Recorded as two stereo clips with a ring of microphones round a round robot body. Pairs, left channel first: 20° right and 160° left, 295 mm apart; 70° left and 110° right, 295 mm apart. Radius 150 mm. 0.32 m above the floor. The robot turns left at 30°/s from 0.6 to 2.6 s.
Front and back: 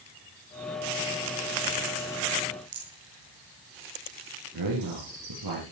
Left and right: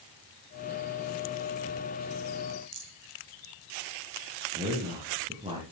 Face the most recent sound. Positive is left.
turn(degrees=175)